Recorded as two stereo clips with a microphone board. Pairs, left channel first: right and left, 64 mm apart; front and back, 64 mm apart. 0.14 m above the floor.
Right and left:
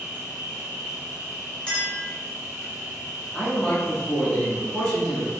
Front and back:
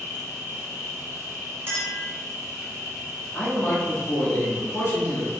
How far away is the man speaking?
About 1.2 m.